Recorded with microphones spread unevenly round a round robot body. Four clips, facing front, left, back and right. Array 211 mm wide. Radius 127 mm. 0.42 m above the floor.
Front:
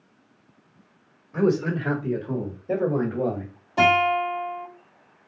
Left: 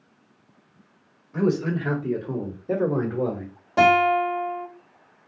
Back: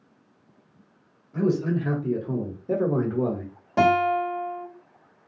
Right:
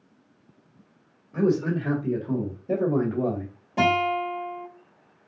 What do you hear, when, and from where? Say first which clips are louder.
1.3 s a man speaking: even, front 2 dB; 40° left, 1.7 m; by 3.5 s 105° left, 1.9 m
3.8 s a guitar: left 5 dB, even; 125° left, 1.9 m